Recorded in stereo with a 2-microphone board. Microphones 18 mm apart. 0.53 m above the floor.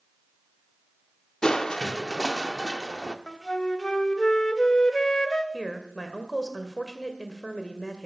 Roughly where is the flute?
Left.